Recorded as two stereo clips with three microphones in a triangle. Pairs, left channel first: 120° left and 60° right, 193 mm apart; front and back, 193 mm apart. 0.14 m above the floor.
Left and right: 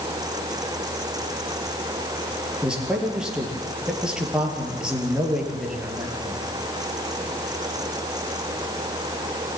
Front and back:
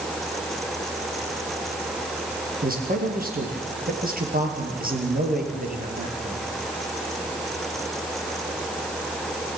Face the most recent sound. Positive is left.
turn(degrees=-145)